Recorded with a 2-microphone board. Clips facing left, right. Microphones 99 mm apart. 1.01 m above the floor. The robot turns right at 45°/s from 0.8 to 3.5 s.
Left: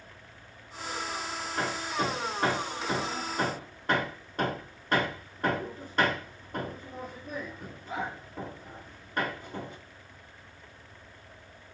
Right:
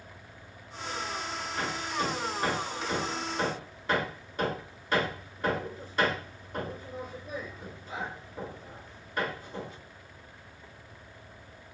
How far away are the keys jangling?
No keys jangling in this recording.